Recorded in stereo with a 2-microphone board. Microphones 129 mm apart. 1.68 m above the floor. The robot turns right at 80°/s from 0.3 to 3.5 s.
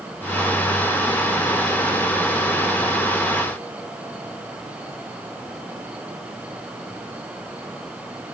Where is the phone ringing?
I don't hear a phone ringing.